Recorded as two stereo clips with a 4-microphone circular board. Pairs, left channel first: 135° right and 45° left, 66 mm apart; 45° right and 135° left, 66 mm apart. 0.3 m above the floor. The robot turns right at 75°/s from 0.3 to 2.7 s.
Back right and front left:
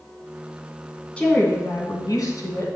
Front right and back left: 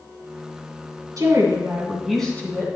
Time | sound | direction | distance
1.2 | a woman speaking | 155° left | 2 m